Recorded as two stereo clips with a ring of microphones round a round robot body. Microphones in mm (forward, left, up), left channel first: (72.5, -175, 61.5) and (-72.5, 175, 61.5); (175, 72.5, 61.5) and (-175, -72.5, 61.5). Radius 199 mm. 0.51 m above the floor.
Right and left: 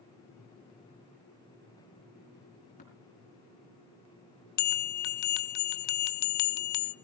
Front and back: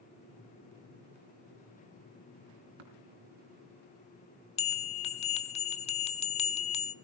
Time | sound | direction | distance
2.8 | tapping | 140° right | 3.5 m
4.6 | a bell | 50° right | 0.9 m